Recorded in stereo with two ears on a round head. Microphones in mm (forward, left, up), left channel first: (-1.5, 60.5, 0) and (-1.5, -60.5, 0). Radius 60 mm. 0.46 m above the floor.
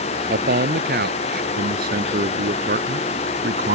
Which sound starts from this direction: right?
A man speaking, at 0.3 s.